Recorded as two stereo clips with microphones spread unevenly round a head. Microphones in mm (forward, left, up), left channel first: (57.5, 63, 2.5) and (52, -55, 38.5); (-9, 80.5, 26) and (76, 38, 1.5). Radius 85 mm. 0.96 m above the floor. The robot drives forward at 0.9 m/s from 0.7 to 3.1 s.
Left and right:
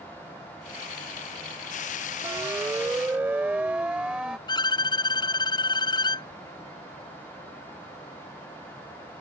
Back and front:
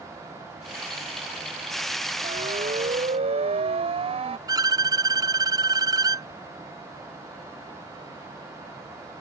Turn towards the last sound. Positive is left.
turn(degrees=30)